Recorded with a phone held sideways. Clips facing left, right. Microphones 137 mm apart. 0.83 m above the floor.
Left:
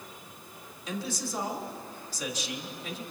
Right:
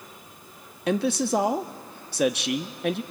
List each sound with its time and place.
0.9 s a man speaking: 65° right (ahead or behind), 1.0 m